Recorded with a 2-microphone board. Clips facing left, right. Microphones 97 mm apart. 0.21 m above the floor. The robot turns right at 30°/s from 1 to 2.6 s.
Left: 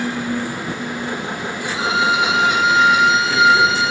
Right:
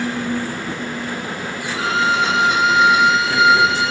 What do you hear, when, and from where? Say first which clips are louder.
1.7 s a violin: even; 20° left (ahead or behind), 0.6 m; by 3.9 s centre (ahead or behind), 0.6 m